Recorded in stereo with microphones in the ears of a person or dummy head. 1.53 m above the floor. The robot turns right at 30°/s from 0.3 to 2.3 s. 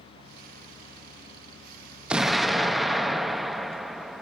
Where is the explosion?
10° right (ahead or behind), 0.9 m; by 4.2 s 5° right (ahead or behind), 0.9 m.